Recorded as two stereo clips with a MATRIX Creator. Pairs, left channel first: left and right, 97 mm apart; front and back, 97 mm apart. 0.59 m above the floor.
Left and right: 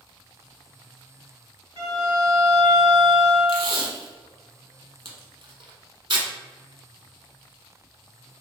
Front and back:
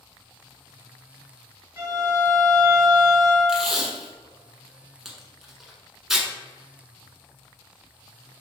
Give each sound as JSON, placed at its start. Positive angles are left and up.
{"t": 1.8, "sound": "a violin", "azimuth_deg": -120, "distance_m": 1.1}
{"t": 3.5, "sound": "tape being pulled", "azimuth_deg": -95, "distance_m": 0.9}